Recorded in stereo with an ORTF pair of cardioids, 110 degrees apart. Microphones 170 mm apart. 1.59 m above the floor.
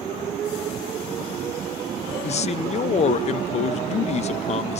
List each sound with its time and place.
2.2 s a man speaking: 40° left, 0.9 m